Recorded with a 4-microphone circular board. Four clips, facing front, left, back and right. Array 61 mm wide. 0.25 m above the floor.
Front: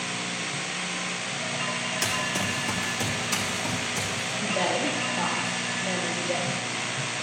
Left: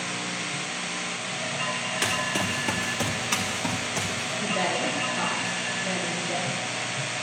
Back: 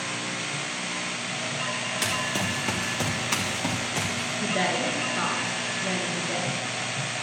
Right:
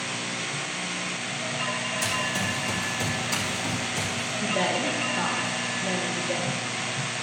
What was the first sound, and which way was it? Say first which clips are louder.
Running footsteps: left 2 dB, back 1 dB; 105° left.